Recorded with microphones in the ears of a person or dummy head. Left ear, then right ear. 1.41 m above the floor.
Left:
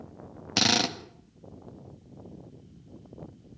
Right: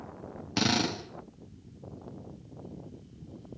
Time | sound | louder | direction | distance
0.6 | a drill | left 4 dB | 45° left (ahead or behind) | 2 m